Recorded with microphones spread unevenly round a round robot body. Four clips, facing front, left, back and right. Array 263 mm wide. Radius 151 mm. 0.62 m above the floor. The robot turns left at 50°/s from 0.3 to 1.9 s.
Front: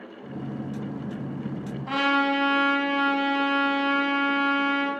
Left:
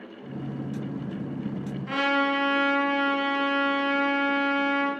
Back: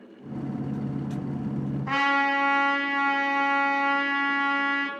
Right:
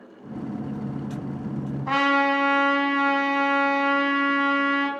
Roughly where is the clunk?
No clunk in this recording.